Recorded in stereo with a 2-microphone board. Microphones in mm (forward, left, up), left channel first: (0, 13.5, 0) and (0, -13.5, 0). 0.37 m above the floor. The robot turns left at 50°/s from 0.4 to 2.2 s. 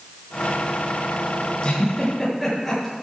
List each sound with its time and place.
1.6 s a giggle: 30° left (ahead or behind), 7.5 m; by 2.9 s 5° left (ahead or behind), 7.5 m